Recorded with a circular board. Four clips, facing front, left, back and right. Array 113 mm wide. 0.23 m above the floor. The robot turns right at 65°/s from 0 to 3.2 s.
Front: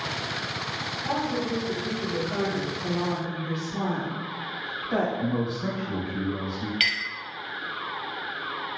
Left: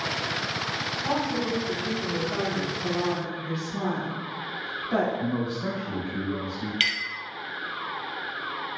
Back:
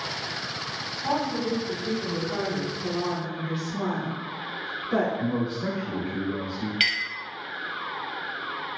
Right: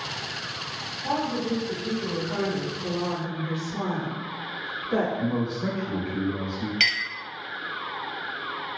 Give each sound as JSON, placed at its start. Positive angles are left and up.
{"t": 1.0, "sound": "a woman speaking", "azimuth_deg": 165, "distance_m": 1.3}
{"t": 2.8, "sound": "a woman speaking", "azimuth_deg": 15, "distance_m": 1.5}
{"t": 5.2, "sound": "a man speaking", "azimuth_deg": -125, "distance_m": 1.1}
{"t": 6.8, "sound": "a clink", "azimuth_deg": -100, "distance_m": 0.5}